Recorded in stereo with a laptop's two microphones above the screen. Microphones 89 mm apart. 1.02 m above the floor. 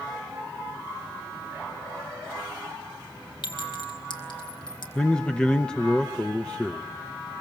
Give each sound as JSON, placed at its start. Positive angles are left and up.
{"t": 3.4, "sound": "a clink", "side_deg": 65, "distance_m": 4.0}
{"t": 5.0, "sound": "a man speaking", "side_deg": 10, "distance_m": 0.8}